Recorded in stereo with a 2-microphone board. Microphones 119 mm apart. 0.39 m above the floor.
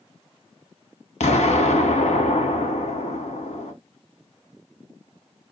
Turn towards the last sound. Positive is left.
turn(degrees=75)  # may be behind; listen again after turning